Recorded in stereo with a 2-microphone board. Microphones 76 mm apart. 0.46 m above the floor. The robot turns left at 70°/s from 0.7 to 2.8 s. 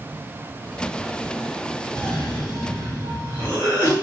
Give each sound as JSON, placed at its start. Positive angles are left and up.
{"t": 1.9, "sound": "a cough", "azimuth_deg": 15, "distance_m": 0.8}